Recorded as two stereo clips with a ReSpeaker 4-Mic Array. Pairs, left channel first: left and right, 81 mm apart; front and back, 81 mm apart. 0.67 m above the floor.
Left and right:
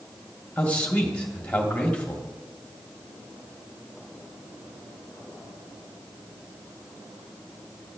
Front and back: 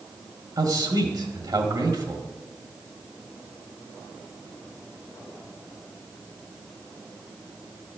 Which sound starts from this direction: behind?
A man speaking, at 0.6 s.